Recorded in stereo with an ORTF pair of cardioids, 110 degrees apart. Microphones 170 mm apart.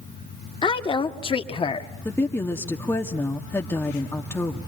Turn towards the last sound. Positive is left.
turn(degrees=15)